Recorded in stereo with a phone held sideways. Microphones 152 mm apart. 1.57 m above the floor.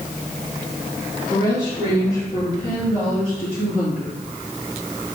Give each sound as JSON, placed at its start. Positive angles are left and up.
{"t": 1.3, "sound": "a woman speaking", "side_deg": 20, "distance_m": 2.5}